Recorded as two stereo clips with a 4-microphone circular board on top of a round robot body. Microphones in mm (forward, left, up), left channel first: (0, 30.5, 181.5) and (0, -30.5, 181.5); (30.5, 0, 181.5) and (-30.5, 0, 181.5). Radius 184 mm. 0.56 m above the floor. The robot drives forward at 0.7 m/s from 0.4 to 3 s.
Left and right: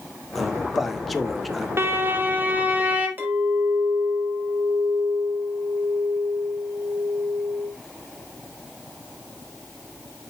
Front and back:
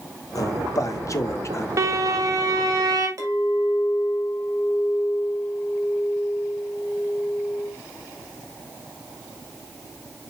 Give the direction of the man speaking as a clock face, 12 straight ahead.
12 o'clock.